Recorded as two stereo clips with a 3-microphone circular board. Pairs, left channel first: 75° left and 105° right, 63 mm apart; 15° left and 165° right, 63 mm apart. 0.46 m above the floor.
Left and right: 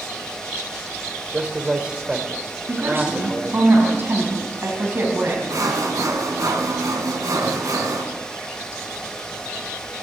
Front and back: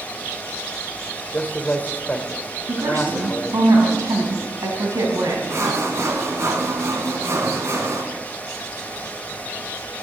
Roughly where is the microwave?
No microwave in this recording.